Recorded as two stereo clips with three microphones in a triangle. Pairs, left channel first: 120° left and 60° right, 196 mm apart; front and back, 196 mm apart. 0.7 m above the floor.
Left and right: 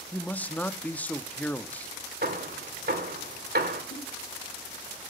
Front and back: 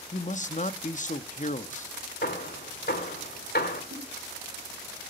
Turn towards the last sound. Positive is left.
turn(degrees=155)